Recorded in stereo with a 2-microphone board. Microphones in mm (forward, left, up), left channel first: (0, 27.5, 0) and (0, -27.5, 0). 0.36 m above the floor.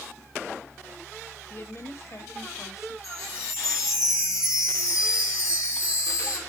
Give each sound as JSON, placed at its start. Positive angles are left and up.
{"t": 1.5, "sound": "a woman speaking", "side_deg": 40, "distance_m": 1.0}
{"t": 3.0, "sound": "a chime", "side_deg": 65, "distance_m": 3.5}